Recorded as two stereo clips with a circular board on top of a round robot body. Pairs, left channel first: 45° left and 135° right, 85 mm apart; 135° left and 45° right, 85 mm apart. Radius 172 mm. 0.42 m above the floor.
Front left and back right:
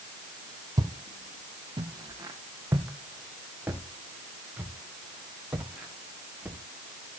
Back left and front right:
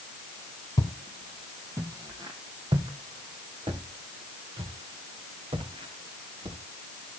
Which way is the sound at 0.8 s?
Straight behind.